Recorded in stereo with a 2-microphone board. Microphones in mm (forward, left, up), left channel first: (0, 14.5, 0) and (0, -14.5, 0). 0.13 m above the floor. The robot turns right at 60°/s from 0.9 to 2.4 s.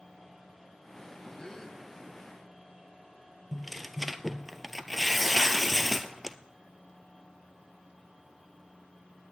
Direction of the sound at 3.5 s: 5° right (ahead or behind).